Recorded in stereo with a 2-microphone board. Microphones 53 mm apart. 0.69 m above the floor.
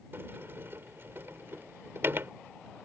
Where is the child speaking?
I don't hear a child speaking.